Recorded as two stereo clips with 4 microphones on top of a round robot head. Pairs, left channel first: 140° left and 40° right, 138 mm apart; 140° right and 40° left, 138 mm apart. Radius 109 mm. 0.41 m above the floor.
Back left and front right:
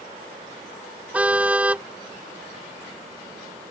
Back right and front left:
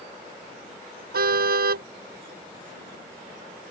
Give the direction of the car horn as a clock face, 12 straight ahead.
11 o'clock.